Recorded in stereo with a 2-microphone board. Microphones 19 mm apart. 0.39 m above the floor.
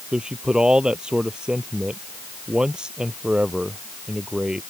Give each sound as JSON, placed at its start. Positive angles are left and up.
{"t": 0.1, "sound": "a man speaking", "side_deg": -45}